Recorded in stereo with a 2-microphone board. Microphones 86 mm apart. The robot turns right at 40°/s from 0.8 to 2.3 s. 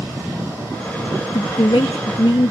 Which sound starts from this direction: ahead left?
A woman speaking, at 1.3 s.